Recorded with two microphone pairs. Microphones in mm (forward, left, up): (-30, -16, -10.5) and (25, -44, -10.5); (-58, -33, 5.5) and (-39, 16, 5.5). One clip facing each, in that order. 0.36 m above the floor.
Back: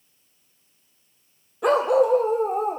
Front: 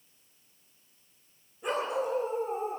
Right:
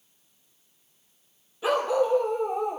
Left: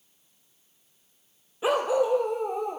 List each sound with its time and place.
1.6 s a dog barking: 140° left, 3 m; by 2.8 s 165° left, 3 m